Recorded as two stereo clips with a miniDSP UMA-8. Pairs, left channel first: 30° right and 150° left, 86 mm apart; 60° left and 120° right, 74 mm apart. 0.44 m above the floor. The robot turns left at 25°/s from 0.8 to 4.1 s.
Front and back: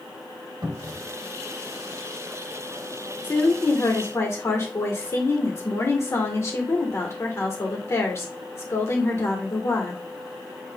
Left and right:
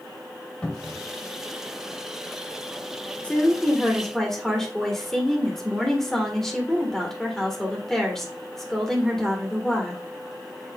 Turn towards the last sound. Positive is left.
turn(degrees=-20)